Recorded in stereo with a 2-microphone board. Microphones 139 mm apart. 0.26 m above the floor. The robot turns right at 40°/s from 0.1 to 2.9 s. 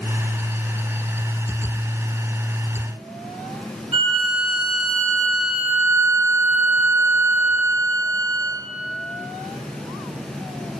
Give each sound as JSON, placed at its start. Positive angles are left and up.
{"t": 3.9, "sound": "a violin", "side_deg": -45, "distance_m": 5.0}